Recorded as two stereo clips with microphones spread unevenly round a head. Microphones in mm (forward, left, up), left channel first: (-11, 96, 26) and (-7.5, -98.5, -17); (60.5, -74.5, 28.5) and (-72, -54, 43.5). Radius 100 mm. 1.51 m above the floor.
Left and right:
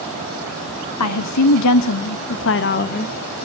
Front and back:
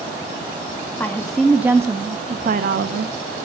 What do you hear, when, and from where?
1.0 s a woman speaking: 70° left, 1.1 m; by 3.1 s 150° left, 0.9 m